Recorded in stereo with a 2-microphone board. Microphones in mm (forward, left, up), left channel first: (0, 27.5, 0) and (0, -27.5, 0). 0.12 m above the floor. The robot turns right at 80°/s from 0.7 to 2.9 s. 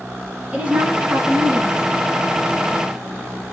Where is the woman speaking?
20° right (ahead or behind), 1.3 m; by 2.1 s 5° right (ahead or behind), 1.3 m.